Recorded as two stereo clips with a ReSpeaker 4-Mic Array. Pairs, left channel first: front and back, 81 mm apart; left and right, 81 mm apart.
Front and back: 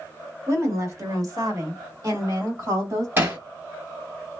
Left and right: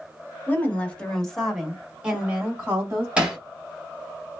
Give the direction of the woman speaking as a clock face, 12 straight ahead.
7 o'clock.